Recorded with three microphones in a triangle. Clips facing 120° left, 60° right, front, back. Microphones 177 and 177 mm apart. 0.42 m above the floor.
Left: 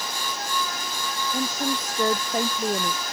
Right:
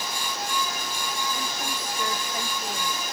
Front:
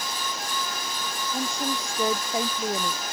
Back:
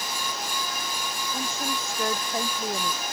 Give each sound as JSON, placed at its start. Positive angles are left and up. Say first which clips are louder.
{"t": 1.3, "sound": "a woman speaking", "louder": "left 6 dB, front 4 dB", "azimuth_deg": 75}